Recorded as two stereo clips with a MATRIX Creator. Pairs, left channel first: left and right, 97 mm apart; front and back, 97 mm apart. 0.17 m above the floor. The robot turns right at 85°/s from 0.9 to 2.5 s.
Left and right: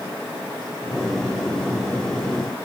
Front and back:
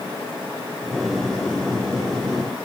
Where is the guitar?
I don't hear a guitar.